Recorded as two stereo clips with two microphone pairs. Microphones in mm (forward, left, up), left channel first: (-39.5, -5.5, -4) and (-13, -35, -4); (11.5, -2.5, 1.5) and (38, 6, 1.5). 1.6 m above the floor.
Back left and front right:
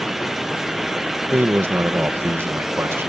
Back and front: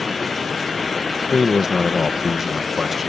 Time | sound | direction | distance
1.3 | a man speaking | 60° right | ?